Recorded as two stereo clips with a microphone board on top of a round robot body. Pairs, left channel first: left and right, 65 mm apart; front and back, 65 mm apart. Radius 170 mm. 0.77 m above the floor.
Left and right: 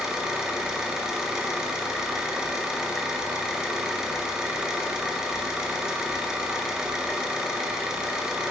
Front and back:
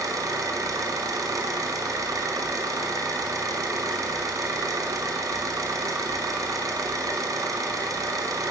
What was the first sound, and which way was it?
An engine running, 170° right.